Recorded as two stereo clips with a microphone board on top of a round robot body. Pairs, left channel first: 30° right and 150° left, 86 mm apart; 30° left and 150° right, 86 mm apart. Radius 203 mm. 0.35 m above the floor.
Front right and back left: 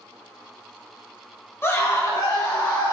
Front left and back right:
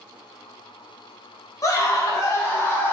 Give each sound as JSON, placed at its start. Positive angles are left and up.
{"t": 1.6, "sound": "a scream", "azimuth_deg": 15, "distance_m": 1.2}